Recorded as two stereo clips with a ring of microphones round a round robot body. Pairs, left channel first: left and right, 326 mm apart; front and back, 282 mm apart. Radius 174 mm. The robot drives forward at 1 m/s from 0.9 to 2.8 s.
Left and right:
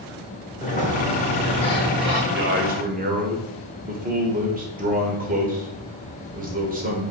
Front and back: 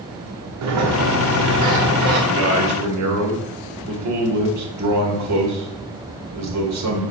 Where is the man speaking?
140° right, 1.1 m; by 7.1 s 155° right, 1.5 m.